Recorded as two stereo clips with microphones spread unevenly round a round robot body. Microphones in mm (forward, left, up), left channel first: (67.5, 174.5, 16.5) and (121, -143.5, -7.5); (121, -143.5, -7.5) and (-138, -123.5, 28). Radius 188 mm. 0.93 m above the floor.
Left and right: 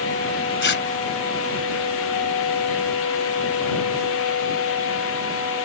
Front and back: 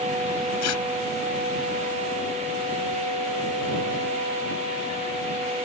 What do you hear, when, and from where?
0.6 s tearing paper: 45° left